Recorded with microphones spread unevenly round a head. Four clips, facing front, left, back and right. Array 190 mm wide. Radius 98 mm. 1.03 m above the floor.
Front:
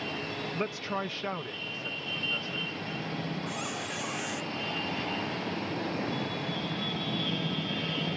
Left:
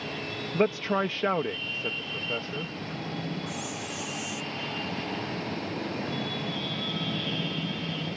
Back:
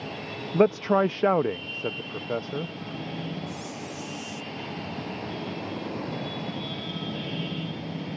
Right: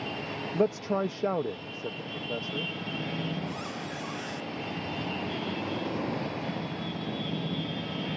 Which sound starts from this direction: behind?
A man speaking, at 0.5 s.